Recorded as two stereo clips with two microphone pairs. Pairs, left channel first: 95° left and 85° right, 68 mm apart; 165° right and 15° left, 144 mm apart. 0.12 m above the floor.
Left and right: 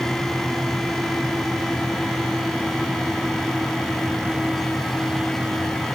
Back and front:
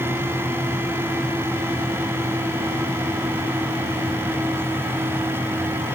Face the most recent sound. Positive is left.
No sound to turn to.